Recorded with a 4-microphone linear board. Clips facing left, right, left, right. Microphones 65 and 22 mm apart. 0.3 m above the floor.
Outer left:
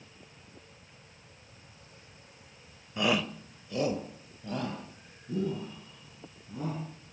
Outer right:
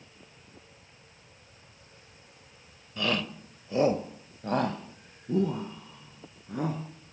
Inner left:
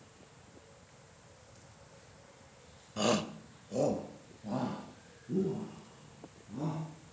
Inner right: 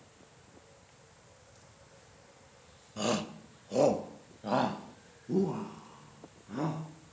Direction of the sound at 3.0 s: 20° left (ahead or behind).